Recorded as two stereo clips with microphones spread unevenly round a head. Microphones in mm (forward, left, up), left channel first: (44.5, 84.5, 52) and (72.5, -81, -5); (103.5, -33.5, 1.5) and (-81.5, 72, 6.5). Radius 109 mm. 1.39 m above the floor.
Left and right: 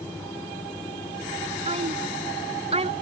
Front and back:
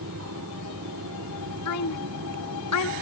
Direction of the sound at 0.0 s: Straight behind.